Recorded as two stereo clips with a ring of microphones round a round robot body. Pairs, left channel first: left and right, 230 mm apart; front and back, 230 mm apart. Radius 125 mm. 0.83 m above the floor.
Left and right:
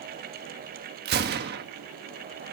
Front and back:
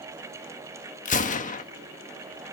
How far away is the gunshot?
About 1.4 m.